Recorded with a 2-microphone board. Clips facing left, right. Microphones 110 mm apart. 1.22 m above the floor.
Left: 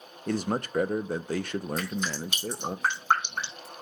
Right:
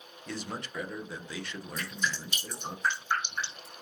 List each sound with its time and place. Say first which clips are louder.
0.3 s a man speaking: left 10 dB; 45° left (ahead or behind), 0.7 m
1.8 s dripping: left 4 dB; 75° left (ahead or behind), 5 m